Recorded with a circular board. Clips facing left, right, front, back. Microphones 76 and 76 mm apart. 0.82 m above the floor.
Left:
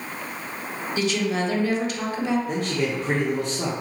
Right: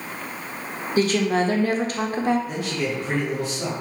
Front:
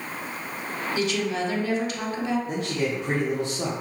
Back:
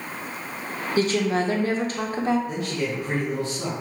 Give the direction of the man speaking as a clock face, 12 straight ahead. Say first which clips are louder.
Left 1 dB, front 1 dB; 10 o'clock.